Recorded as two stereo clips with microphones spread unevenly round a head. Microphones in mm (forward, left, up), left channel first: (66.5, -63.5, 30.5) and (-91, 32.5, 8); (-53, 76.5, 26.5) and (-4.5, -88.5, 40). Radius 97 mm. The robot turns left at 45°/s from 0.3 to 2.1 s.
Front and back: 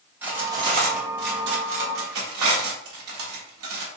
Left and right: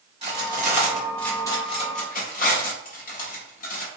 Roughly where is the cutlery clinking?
Behind right.